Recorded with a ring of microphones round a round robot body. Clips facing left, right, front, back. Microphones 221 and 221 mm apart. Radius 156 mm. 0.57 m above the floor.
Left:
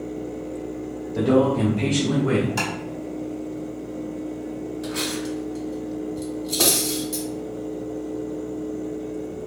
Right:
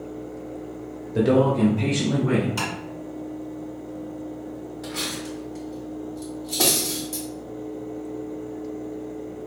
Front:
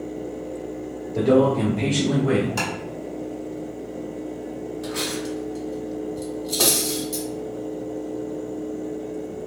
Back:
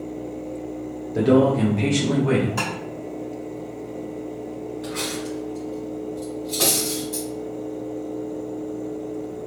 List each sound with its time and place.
1.1 s a man speaking: 115° right, 0.7 m; by 2.5 s 80° left, 1.0 m
2.6 s tapping: 35° left, 2.0 m
4.8 s cutlery clinking: 35° left, 1.9 m